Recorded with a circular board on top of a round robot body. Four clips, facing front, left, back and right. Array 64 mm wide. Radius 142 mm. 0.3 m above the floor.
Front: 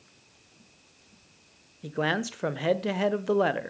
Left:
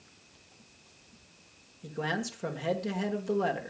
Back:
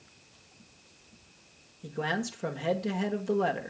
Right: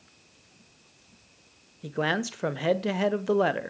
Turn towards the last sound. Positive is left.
turn(degrees=-45)